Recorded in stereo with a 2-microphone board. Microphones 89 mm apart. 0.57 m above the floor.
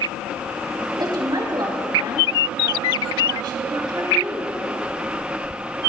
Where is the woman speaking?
50° right (ahead or behind), 3.5 m.